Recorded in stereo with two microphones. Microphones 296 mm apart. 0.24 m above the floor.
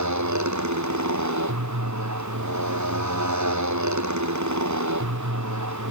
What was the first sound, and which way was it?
A motorcycle, 70° right (ahead or behind).